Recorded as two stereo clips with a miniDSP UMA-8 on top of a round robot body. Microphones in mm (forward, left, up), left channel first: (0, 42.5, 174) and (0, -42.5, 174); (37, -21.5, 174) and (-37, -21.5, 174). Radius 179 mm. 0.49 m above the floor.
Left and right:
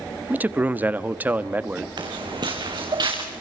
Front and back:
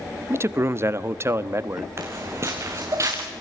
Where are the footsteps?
125° right, 4 m; by 3.2 s 130° right, 4.5 m.